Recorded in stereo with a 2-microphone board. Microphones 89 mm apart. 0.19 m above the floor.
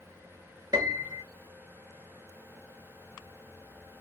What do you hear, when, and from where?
0.7 s a piano: 45° right (ahead or behind), 0.6 m